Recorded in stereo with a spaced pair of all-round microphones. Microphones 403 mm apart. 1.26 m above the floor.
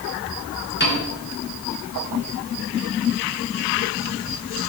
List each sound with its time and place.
0.8 s a piano: 25° left (ahead or behind), 2.5 m